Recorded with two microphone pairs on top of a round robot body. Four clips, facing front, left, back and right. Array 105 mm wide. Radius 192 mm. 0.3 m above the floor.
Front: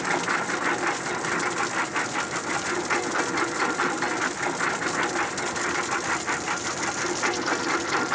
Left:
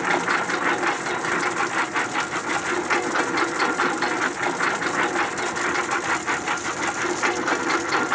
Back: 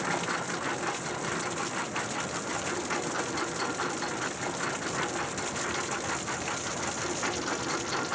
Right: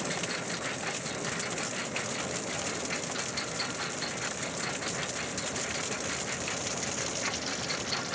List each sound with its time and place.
0.0 s a lawn mower: 75° left